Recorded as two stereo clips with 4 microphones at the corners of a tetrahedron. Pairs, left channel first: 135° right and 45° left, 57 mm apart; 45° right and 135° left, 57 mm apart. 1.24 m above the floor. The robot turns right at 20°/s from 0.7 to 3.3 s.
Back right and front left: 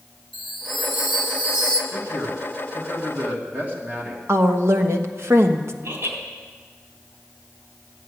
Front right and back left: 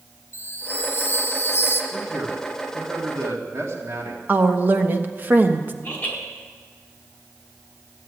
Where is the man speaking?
70° left, 2.5 m; by 4.2 s 100° left, 2.5 m.